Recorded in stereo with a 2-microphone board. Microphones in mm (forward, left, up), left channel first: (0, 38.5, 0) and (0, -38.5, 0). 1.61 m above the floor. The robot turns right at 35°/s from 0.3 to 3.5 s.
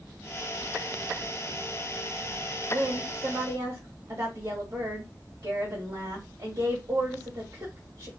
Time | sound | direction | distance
2.7 | a woman speaking | 80° right | 1.6 m